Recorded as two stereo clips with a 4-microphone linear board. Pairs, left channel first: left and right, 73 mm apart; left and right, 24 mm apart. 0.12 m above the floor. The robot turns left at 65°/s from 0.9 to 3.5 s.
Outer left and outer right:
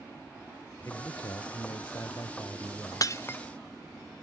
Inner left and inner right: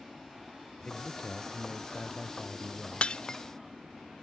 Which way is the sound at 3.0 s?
50° left (ahead or behind).